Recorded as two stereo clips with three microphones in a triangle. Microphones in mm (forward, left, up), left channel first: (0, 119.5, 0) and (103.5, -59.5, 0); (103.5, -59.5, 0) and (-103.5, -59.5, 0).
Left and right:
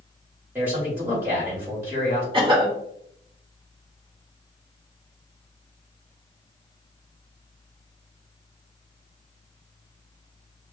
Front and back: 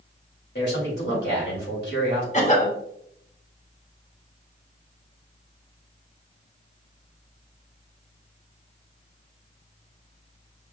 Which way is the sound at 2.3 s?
15° right.